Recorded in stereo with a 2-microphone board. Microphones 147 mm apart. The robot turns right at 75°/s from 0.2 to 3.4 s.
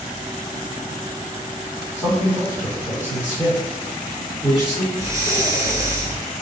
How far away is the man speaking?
About 1.6 m.